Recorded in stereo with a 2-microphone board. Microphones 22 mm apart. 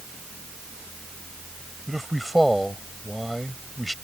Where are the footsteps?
I don't hear footsteps.